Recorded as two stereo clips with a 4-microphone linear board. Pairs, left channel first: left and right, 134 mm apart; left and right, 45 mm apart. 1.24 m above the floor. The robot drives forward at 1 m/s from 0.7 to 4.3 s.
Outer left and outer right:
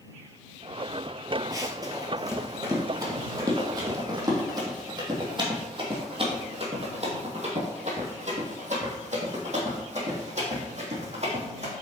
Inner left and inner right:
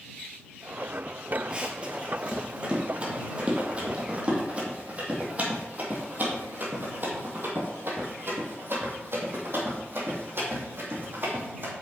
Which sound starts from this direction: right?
Running footsteps, at 1.5 s.